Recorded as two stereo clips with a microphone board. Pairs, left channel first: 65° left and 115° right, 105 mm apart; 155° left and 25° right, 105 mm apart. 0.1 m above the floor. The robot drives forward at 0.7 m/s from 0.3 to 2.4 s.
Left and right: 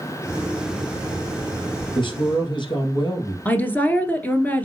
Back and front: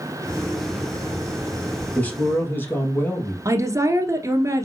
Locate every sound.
1.9 s a man speaking: 80° left, 3 m; by 3.4 s 90° left, 3 m
3.5 s a woman speaking: 5° left, 1.4 m